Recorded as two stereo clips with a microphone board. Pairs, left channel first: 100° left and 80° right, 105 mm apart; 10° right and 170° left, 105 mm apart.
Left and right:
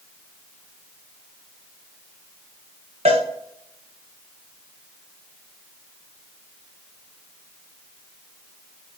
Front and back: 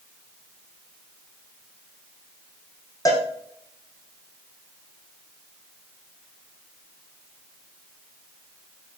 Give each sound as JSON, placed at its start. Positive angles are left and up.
{"t": 3.0, "sound": "a cowbell", "azimuth_deg": -70, "distance_m": 3.5}